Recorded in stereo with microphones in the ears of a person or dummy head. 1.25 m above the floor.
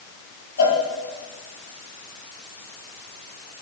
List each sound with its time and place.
0.6 s a cowbell: 65° left (ahead or behind), 5.5 m